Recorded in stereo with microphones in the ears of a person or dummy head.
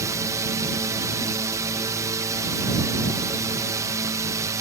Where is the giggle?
I don't hear a giggle.